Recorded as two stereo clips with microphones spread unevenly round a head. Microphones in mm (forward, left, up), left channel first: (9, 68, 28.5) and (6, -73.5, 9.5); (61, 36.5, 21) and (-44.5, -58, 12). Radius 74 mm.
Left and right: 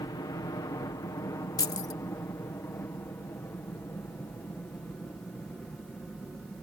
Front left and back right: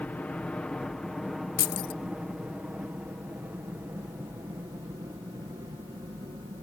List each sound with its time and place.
0.0 s a helicopter: 110° left; by 6.6 s 175° left
1.6 s keys jangling: 25° left